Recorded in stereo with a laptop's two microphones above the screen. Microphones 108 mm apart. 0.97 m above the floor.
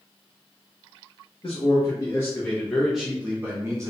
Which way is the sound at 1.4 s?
50° left (ahead or behind).